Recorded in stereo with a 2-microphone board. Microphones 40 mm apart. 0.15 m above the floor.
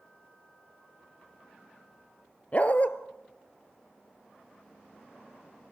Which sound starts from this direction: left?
A dog barking, at 2.5 s.